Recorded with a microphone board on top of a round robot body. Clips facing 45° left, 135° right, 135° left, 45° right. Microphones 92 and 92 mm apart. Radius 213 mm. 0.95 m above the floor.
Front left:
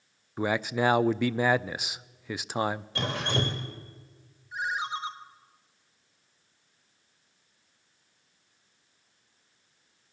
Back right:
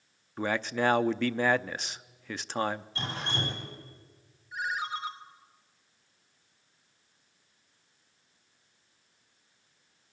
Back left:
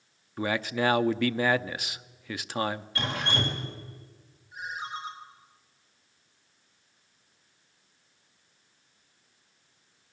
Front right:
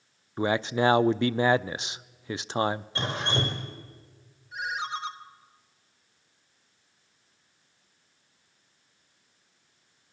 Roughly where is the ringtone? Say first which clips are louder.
Front left 2 dB, front right 4 dB; ahead right.